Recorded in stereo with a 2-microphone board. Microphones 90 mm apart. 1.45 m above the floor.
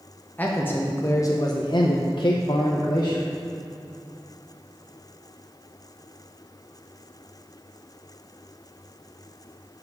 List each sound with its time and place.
0.4 s a man speaking: 20° left (ahead or behind), 1.1 m; by 3.3 s 40° left (ahead or behind), 1.1 m